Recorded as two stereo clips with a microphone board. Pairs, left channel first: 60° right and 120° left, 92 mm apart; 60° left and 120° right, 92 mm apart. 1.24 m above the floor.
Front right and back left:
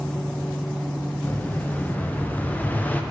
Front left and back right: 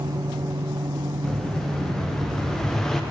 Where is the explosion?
20° right, 0.6 m.